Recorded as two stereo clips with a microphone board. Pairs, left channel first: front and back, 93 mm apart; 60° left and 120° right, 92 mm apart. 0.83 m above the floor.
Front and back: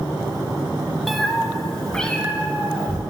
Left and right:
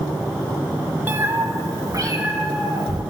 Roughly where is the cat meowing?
Right.